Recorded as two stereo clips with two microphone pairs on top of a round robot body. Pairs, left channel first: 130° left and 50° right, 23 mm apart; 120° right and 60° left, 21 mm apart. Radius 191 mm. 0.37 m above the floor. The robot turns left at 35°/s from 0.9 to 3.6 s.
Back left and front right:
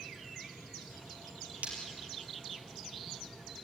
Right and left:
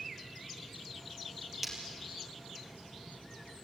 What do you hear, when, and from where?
1.6 s breaking glass: 25° right, 4.5 m; by 1.7 s 30° right, 4.5 m